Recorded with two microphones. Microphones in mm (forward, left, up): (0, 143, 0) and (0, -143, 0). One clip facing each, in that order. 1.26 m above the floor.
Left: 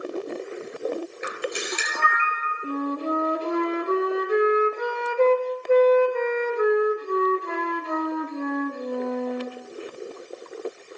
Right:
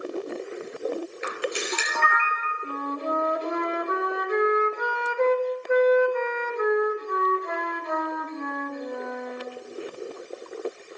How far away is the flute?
About 0.9 m.